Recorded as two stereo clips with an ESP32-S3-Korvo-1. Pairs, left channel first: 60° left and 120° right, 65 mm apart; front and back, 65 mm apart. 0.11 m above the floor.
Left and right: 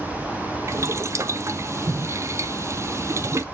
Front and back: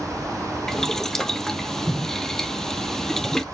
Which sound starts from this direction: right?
Boiling, at 0.7 s.